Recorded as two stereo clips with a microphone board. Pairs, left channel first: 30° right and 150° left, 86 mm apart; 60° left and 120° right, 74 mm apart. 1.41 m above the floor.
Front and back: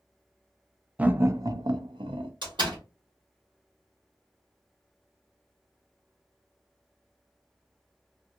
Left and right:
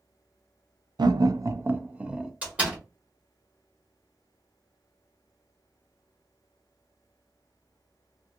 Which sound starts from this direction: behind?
A door slam, at 2.4 s.